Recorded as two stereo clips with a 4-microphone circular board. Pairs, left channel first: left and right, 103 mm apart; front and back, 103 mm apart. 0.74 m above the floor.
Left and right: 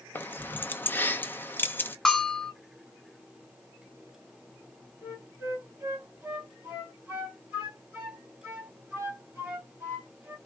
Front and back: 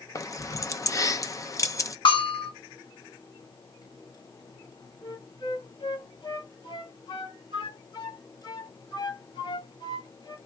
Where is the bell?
5° left, 1.5 m.